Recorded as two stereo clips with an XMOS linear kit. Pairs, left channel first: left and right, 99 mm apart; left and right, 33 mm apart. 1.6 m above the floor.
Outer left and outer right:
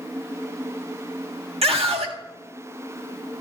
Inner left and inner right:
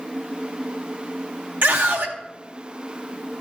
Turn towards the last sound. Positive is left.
turn(degrees=-75)  # may be behind; listen again after turning